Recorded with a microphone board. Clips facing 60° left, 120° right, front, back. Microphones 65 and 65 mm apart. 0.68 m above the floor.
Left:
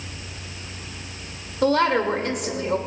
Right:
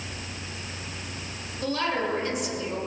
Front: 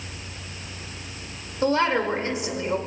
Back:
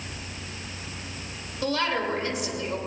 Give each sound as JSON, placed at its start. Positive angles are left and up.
{"t": 1.6, "sound": "a woman speaking", "azimuth_deg": 60, "distance_m": 2.5}